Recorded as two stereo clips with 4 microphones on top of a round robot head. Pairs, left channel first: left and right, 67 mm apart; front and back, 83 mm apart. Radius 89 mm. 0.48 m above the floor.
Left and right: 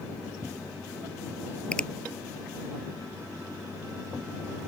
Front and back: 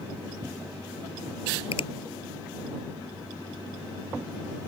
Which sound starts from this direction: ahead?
A finger snap, at 1.7 s.